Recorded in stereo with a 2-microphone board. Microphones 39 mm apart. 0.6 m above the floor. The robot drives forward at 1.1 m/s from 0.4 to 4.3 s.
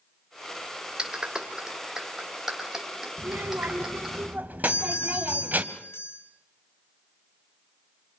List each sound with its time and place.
1.0 s a clap: 20° right (ahead or behind), 2 m; by 4.2 s 10° right (ahead or behind), 5.5 m
3.2 s a child speaking: 80° right, 1.4 m; by 5.6 s 45° right (ahead or behind), 2 m
4.6 s a doorbell: 70° left (ahead or behind), 4.5 m